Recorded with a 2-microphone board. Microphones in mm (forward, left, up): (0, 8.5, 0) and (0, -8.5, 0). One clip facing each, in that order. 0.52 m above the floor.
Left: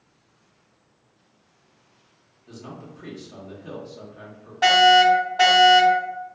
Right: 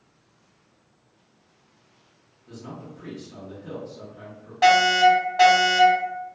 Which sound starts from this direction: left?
A man speaking, at 2.5 s.